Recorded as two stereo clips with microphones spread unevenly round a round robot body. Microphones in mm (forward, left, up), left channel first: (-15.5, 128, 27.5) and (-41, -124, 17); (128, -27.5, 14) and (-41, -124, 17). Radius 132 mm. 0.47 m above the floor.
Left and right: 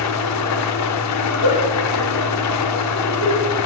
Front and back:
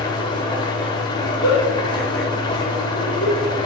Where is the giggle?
80° left, 5 m.